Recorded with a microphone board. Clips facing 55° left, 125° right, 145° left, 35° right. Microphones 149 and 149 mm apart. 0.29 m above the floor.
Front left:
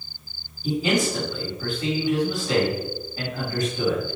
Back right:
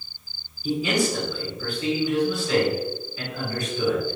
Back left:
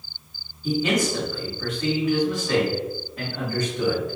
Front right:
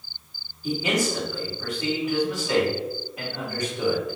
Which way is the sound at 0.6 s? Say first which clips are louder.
Front left 1 dB, back left 2 dB; 40° left.